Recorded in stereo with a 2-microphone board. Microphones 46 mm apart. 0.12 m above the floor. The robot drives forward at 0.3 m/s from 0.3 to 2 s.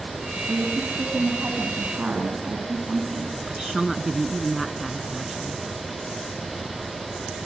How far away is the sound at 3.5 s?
About 1.5 m.